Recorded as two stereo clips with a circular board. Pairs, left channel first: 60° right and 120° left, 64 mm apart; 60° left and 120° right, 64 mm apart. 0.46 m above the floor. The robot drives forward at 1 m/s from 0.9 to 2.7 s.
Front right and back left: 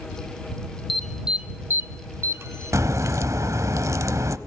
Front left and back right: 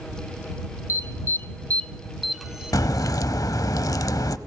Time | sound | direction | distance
0.9 | an alarm | 30° left | 1.0 m
2.7 | a crack | 85° left | 0.8 m